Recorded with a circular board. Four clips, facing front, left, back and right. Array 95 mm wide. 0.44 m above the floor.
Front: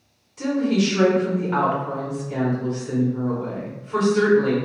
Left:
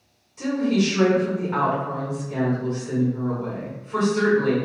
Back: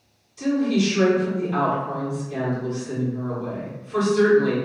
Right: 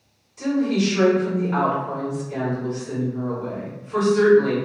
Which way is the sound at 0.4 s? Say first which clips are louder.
Right 1 dB, even; 5° left.